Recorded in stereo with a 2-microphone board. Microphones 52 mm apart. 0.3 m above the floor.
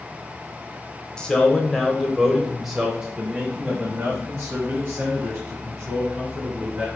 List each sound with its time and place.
1.2 s a man speaking: 15° left (ahead or behind), 1.2 m; by 6.9 s 35° right (ahead or behind), 2.5 m